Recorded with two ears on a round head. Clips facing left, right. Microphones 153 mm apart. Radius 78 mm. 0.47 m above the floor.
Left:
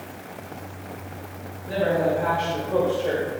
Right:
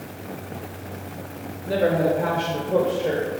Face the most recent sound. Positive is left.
turn(degrees=-10)  # may be behind; listen again after turning